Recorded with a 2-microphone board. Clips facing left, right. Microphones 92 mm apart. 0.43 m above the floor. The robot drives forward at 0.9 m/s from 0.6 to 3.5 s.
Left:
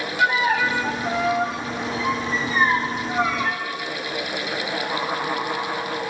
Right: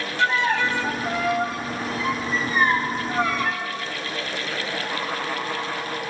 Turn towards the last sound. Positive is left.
turn(degrees=0)  # may be behind; listen again after turning